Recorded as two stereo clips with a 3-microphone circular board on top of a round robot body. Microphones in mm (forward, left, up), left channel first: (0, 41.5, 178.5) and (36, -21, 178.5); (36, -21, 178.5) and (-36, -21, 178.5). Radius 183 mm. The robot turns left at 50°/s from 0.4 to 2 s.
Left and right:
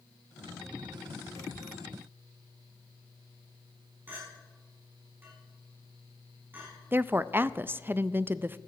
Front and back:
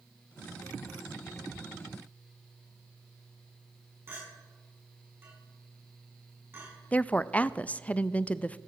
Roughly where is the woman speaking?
Ahead right.